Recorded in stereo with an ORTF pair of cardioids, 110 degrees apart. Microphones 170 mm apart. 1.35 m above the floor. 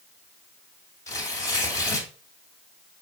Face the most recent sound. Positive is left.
turn(degrees=20)